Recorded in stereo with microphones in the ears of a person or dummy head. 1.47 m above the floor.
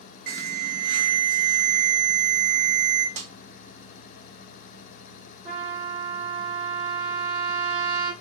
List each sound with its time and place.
0.3 s an alarm: 55° right (ahead or behind), 1.7 m
3.2 s a snare drum: 35° right (ahead or behind), 0.6 m
5.5 s a trumpet: 30° right (ahead or behind), 1.8 m